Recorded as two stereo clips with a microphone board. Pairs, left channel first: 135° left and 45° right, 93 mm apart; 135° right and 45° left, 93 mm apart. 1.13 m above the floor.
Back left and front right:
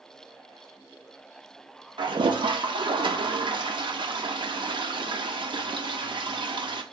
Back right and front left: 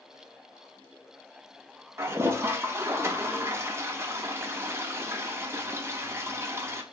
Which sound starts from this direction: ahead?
A toilet flushing, at 2.0 s.